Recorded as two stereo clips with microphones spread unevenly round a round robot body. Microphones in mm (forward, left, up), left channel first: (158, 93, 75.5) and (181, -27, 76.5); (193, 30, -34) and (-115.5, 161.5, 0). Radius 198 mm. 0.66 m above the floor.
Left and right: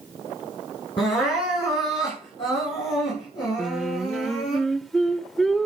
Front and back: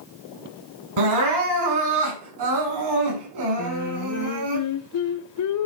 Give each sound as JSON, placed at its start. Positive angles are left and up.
{"t": 1.0, "sound": "crying", "azimuth_deg": 165, "distance_m": 8.0}
{"t": 3.6, "sound": "singing", "azimuth_deg": 15, "distance_m": 1.6}